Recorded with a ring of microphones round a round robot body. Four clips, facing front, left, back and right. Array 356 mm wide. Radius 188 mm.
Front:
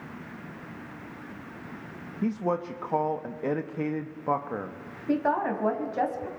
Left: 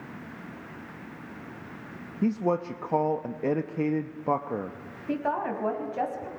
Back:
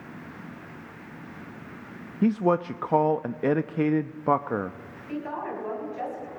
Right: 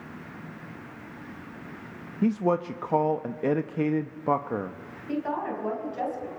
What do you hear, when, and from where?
2.2 s a man speaking: 165° right, 0.8 m
5.1 s a woman speaking: 30° left, 4 m